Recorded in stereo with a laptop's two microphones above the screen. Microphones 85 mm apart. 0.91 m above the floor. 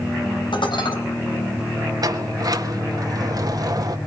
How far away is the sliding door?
About 1.5 m.